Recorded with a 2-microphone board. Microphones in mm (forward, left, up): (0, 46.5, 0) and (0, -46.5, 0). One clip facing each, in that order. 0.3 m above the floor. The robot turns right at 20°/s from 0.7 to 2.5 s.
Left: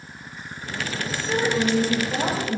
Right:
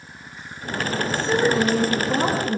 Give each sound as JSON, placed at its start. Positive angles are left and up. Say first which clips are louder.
{"t": 1.1, "sound": "a woman speaking", "louder": "right 3 dB", "side_deg": -40, "distance_m": 4.0}